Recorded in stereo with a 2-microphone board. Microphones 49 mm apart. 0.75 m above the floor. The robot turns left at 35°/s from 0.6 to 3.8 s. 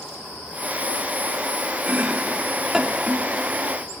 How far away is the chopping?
About 1.2 m.